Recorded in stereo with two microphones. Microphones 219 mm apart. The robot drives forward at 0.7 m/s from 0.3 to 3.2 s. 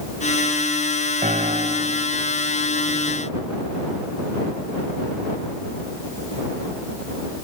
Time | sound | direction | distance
1.2 | a piano | 35° right (ahead or behind) | ?